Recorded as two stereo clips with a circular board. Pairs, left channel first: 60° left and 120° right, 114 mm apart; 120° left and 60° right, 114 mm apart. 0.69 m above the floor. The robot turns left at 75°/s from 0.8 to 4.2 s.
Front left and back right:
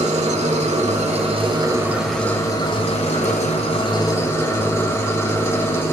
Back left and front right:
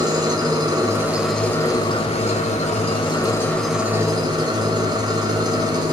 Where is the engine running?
115° right, 1.5 m; by 5.9 s 10° right, 1.5 m.